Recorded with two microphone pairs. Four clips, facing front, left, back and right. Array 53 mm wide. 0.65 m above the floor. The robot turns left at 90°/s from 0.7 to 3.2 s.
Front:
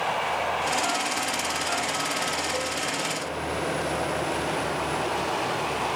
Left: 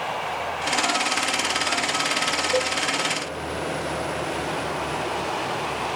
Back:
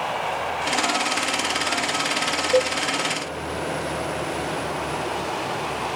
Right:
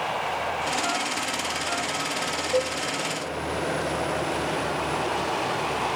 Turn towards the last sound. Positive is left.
turn(degrees=110)